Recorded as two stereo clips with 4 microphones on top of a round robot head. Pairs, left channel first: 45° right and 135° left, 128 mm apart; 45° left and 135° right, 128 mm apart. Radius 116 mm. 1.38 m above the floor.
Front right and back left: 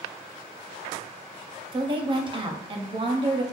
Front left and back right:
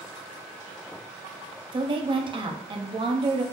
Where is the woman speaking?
Straight behind, 0.6 m.